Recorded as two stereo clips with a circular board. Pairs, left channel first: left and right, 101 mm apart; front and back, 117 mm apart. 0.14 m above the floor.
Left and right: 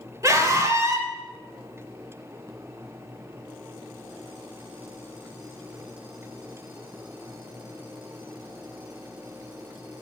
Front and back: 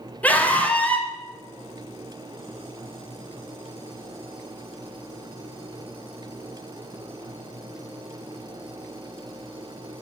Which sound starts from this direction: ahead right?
A scream, at 0.2 s.